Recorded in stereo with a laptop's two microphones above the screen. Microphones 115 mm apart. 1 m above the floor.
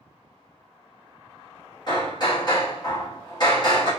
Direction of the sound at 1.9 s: 40° left (ahead or behind).